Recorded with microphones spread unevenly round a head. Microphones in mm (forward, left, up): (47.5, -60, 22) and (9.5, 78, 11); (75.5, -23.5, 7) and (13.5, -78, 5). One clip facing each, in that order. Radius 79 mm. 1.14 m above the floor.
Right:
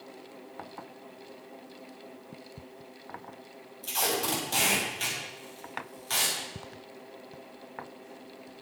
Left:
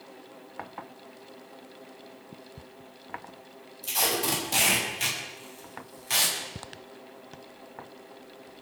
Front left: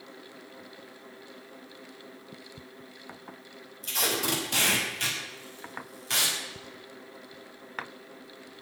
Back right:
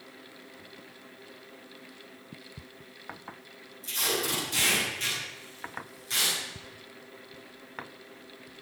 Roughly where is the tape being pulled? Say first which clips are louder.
Left 1 dB, front left 1 dB; ahead left.